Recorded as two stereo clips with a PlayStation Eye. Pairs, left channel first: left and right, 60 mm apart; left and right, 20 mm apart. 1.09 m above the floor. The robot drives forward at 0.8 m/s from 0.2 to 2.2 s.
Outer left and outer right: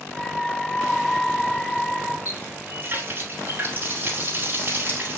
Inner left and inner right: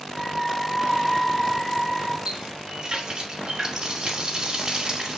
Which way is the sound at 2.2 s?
35° right (ahead or behind).